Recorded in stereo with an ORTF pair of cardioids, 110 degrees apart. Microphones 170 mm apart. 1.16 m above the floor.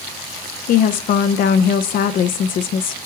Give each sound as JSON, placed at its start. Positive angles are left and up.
{"t": 0.7, "sound": "a woman speaking", "azimuth_deg": 50, "distance_m": 0.5}